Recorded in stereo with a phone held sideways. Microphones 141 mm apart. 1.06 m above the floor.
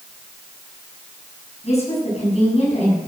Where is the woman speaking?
45° left (ahead or behind), 7 m.